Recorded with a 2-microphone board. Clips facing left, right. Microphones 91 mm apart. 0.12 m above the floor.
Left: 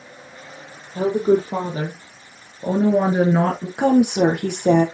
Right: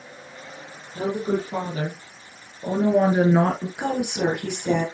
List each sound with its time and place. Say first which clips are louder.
0.9 s a woman speaking: left 7 dB; 45° left (ahead or behind), 3.5 m; by 3.7 s 15° right (ahead or behind), 1.9 m
3.8 s a woman speaking: left 11 dB; 55° left (ahead or behind), 3.5 m